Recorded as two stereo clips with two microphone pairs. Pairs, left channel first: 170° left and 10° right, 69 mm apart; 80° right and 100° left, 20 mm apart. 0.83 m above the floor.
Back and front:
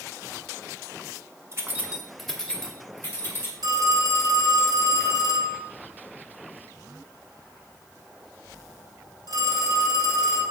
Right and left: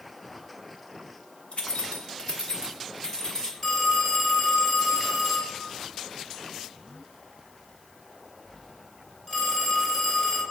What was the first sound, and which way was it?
Keys jangling, 60° right.